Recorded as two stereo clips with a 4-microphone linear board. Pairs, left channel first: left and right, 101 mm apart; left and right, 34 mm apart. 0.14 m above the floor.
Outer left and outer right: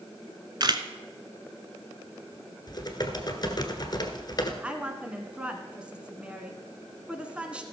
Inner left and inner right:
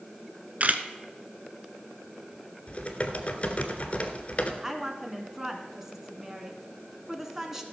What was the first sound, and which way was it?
A camera shutter, 45° right (ahead or behind).